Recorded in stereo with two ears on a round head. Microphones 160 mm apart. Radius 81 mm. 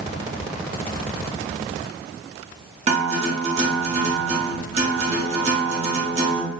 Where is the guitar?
35° right (ahead or behind), 0.8 m.